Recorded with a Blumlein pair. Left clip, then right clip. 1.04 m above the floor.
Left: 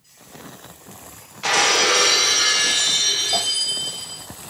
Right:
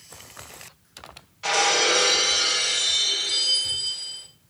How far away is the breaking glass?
About 1.5 m.